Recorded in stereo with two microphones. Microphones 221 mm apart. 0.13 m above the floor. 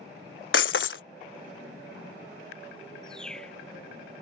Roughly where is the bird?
Centre.